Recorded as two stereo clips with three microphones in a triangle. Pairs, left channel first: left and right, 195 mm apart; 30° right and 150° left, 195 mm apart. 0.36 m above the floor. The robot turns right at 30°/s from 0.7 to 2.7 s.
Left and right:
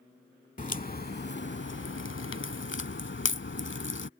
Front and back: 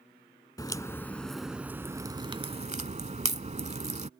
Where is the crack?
40° left; by 4.1 s 100° left.